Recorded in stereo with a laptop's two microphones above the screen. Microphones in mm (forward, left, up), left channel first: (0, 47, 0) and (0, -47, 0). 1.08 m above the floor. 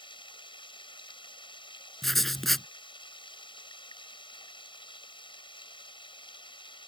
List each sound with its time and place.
0.0 s running water: 55° left (ahead or behind)
2.0 s writing: centre (ahead or behind)